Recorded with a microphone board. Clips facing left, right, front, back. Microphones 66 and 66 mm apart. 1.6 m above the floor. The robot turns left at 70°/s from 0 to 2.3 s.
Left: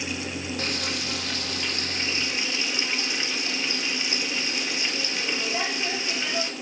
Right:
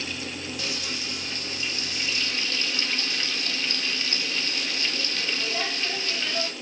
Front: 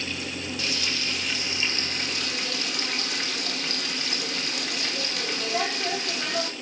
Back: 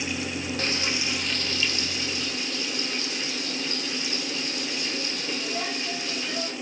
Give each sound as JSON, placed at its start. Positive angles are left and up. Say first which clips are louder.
{"t": 0.6, "sound": "frying", "louder": "left 3 dB, back 2 dB", "azimuth_deg": 135, "distance_m": 2.0}